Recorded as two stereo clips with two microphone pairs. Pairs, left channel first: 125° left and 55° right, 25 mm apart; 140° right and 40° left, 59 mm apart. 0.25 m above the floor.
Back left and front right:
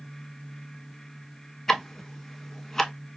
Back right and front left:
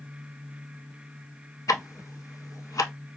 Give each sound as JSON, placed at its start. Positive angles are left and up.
{"t": 1.7, "sound": "ticking", "azimuth_deg": -160, "distance_m": 0.5}